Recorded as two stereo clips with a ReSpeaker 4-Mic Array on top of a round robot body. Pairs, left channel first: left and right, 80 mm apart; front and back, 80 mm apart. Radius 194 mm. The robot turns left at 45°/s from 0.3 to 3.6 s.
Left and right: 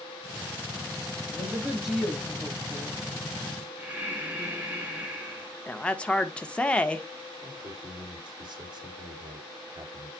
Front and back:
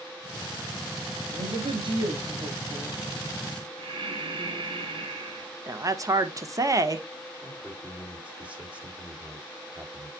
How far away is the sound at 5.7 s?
About 1.3 m.